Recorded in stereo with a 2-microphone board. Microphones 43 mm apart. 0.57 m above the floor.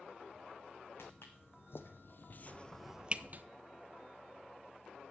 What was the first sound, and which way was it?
Footsteps, 70° left (ahead or behind).